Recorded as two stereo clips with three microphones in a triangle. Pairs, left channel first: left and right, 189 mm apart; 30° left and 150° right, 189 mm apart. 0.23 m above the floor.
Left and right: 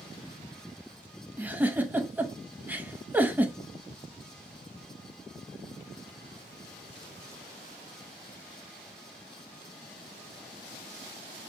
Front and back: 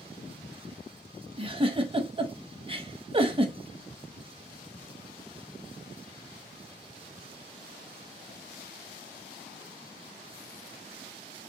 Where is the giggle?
160° right, 0.5 m.